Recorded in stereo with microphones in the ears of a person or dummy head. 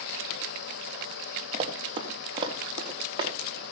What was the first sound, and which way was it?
Running footsteps, 30° right (ahead or behind).